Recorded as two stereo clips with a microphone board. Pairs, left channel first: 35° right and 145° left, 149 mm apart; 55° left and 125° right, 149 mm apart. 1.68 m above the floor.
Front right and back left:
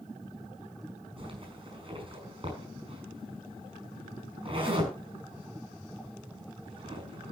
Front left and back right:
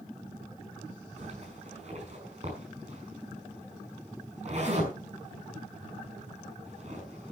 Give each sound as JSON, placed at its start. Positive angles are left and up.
{"t": 1.2, "sound": "a zipper", "azimuth_deg": -160, "distance_m": 5.5}